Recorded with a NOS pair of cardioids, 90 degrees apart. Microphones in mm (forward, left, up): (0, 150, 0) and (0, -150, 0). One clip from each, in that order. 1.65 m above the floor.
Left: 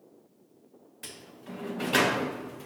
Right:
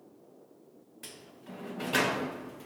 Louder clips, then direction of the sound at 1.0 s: Left 4 dB; 20° left.